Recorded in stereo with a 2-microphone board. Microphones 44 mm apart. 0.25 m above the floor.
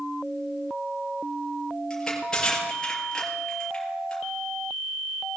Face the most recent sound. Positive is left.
turn(degrees=15)  # may be behind; listen again after turning